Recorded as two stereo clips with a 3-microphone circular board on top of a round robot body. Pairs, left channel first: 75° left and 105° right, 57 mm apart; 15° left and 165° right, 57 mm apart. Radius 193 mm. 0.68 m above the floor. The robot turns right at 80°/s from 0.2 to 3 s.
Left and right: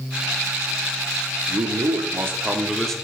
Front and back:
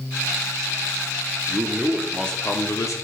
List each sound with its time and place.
1.5 s a man speaking: 120° right, 2 m; by 3.0 s 5° right, 2 m